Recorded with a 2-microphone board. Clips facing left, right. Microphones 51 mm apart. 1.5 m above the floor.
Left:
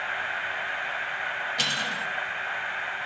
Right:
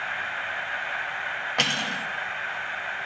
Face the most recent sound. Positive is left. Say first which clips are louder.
# right 5 dB
turn(degrees=-50)  # may be behind; listen again after turning